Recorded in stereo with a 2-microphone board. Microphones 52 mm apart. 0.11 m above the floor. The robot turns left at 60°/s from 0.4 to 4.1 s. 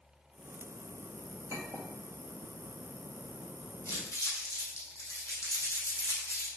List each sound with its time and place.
1.5 s a clink: 60° right (ahead or behind), 2.0 m; by 1.9 s 50° right (ahead or behind), 2.0 m
3.9 s crumpling: 65° left (ahead or behind), 4 m; by 6.5 s 75° left (ahead or behind), 4 m